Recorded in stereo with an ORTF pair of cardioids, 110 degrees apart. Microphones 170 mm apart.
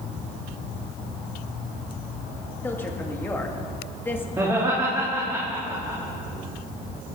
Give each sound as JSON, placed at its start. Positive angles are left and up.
{"t": 2.6, "sound": "a woman speaking", "azimuth_deg": 10, "distance_m": 2.0}
{"t": 4.4, "sound": "laughter", "azimuth_deg": -20, "distance_m": 3.0}